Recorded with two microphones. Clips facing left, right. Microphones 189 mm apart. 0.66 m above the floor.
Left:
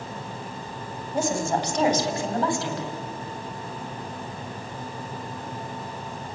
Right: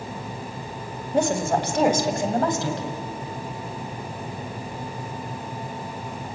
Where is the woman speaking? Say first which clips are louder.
Right 3 dB; 65° right (ahead or behind), 3.5 m; by 2.9 s 35° right (ahead or behind), 5 m.